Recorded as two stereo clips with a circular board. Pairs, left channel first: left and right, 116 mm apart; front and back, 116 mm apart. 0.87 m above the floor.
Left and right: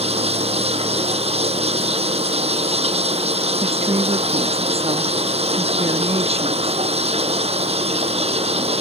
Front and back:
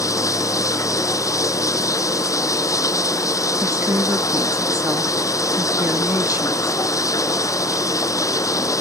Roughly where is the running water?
Ahead right.